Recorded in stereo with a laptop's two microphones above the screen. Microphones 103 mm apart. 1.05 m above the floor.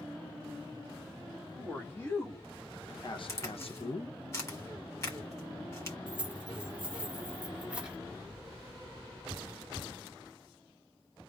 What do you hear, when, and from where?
1.5 s a man speaking: 20° left (ahead or behind), 1.9 m; by 4.2 s 45° left (ahead or behind), 0.8 m
3.3 s a crack: 30° left (ahead or behind), 1.7 m
6.1 s keys jangling: 10° right (ahead or behind), 1.5 m